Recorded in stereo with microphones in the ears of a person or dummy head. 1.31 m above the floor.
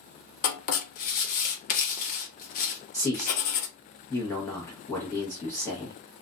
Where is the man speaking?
10° left (ahead or behind), 0.9 m.